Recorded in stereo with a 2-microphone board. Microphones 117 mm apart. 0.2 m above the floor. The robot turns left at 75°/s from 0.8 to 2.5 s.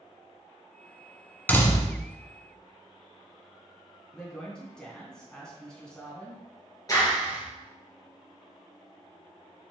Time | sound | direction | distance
1.5 | a door slam | 165° left | 1.2 m
4.1 | a woman speaking | 5° left (ahead or behind) | 2 m
6.9 | a clap | 30° left (ahead or behind) | 2.5 m